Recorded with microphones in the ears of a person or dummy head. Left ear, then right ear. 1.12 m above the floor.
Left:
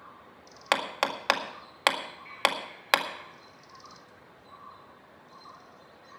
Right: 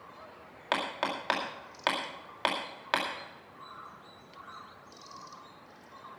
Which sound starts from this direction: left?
Hammering, at 0.7 s.